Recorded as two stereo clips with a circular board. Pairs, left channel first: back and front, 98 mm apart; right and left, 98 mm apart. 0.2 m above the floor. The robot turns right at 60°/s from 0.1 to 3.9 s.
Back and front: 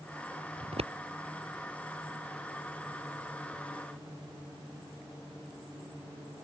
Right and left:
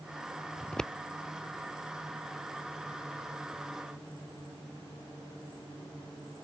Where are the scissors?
20° right; by 0.9 s straight ahead.